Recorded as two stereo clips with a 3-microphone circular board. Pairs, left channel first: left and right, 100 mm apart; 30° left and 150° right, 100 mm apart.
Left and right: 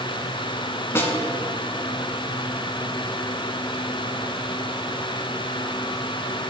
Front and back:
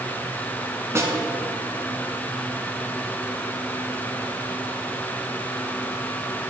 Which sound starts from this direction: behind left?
A snare drum, at 0.9 s.